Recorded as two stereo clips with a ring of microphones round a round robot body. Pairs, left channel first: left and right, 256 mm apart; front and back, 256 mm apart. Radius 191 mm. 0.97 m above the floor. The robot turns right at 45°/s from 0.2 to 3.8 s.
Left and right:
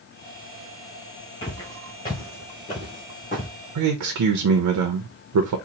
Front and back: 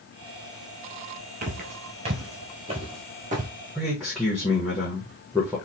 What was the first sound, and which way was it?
Footsteps, 150° left.